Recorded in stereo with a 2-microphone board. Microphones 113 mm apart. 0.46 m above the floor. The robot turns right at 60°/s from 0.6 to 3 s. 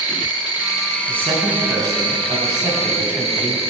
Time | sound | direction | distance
0.0 | an insect | 140° left | 1.7 m
1.1 | a man speaking | 130° right | 3.5 m